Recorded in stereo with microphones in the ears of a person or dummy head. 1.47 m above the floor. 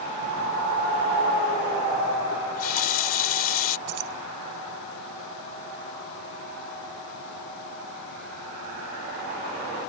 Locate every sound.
2.3 s a running tap: 50° left (ahead or behind)
3.9 s keys jangling: 50° right (ahead or behind)